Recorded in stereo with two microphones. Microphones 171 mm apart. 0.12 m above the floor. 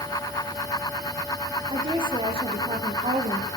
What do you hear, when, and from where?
1.7 s a woman speaking: 30° right (ahead or behind), 6 m; by 3.5 s 40° right (ahead or behind), 5 m